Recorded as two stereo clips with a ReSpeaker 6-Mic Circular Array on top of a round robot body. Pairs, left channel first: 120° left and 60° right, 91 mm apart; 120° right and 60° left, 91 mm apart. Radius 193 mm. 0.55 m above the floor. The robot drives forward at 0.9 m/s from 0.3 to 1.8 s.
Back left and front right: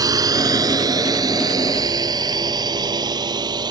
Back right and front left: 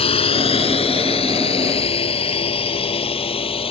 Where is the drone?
110° right; by 3.7 s 100° right.